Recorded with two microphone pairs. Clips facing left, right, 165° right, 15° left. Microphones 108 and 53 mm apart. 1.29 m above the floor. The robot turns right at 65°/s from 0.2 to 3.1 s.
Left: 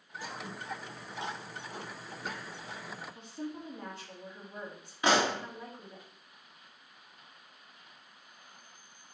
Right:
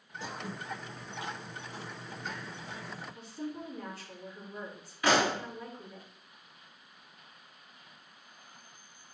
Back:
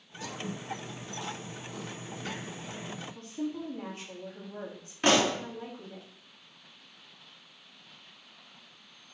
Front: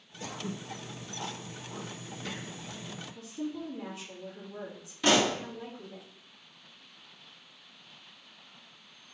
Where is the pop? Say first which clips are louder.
Even, back 1 dB; 155° left, 1.9 m.